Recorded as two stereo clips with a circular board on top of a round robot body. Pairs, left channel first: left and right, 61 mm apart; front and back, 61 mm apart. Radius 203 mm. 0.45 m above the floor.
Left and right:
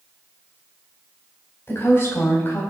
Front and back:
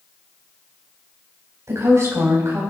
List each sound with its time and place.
1.7 s a woman speaking: 140° left, 4.5 m